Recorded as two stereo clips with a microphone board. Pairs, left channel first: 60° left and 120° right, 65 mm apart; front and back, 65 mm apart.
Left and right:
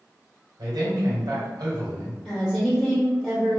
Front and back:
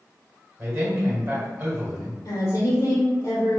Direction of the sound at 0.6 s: 120° right.